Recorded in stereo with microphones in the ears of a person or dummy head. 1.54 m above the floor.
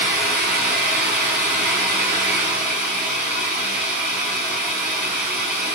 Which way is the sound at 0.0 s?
60° right (ahead or behind).